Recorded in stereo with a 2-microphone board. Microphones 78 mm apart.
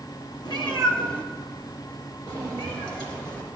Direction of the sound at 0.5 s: 65° left (ahead or behind).